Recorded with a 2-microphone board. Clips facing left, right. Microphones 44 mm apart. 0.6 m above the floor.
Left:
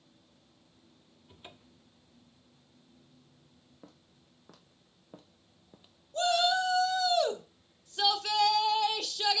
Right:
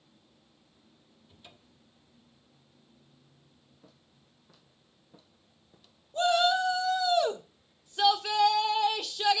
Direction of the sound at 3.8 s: 60° left (ahead or behind).